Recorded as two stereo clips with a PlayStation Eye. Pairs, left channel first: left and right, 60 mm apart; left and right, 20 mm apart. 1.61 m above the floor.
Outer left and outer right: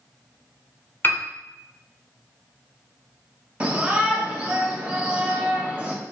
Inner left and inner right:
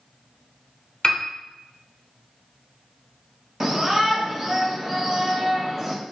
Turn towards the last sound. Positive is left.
turn(degrees=-20)  # may be behind; listen again after turning